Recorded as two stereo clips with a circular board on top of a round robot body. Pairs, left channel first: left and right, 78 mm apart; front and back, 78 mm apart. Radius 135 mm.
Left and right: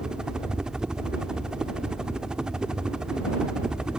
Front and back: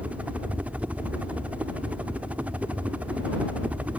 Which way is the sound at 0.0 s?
155° right.